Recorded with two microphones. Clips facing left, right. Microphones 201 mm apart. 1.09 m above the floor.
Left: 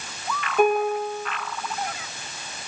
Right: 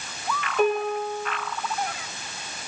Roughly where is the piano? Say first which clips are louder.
Left 3 dB; left.